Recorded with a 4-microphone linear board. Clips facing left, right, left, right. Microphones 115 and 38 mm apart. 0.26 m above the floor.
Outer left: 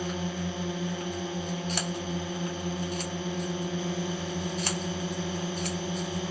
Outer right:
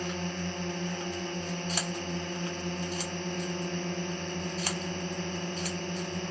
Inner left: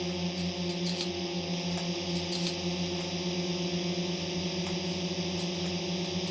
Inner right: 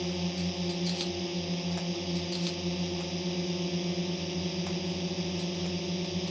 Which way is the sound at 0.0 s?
5° left (ahead or behind).